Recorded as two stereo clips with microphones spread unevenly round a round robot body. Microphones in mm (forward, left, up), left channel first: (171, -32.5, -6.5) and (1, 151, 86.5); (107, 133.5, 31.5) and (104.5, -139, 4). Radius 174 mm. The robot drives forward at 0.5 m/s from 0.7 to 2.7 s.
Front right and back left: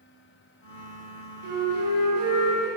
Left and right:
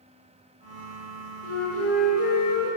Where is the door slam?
No door slam in this recording.